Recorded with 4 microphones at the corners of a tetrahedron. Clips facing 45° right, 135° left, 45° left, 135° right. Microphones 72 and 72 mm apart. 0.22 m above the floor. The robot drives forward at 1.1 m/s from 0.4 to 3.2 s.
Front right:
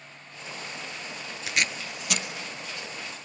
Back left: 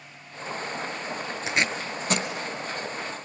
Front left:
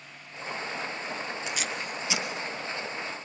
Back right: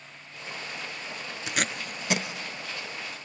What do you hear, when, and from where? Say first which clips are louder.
1.5 s tape being pulled: back left 2 dB, back right 2 dB; 160° right, 0.7 m; by 2.3 s 170° right, 1.5 m